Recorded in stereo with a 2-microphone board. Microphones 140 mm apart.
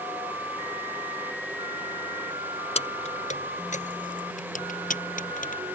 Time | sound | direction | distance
2.8 | keys jangling | 50° left (ahead or behind) | ?